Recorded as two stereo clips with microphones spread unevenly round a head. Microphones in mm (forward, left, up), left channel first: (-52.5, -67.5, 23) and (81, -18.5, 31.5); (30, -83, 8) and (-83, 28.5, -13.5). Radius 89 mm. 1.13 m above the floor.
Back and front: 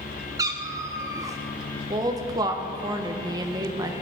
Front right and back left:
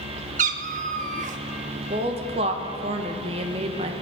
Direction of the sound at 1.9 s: 85° left.